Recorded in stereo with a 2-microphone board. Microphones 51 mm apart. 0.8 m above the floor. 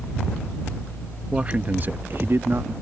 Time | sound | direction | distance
1.3 | a man speaking | 20° right (ahead or behind) | ?